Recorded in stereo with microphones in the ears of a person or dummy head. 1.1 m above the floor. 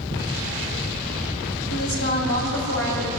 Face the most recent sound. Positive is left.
turn(degrees=70)  # may be behind; listen again after turning